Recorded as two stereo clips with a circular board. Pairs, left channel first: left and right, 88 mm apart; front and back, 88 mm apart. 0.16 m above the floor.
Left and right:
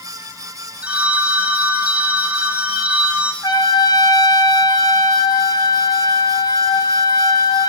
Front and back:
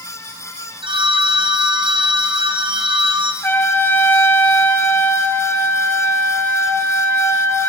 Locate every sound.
0.8 s a phone ringing: 165° right, 5 m
3.4 s a trumpet: 65° left, 3 m